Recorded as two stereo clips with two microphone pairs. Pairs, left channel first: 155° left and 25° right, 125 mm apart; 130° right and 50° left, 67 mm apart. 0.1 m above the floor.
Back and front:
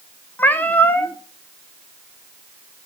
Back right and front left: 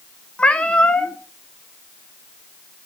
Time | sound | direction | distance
0.4 | a cat meowing | 160° right | 0.7 m